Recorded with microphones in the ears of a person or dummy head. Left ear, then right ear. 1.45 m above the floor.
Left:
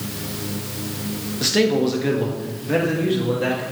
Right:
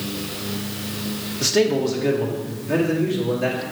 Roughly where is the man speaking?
Centre.